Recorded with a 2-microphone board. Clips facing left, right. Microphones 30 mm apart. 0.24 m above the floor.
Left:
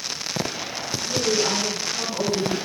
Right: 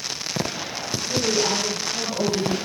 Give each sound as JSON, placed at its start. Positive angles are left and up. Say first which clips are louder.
{"t": 1.0, "sound": "a woman speaking", "louder": "even", "side_deg": -45, "distance_m": 6.0}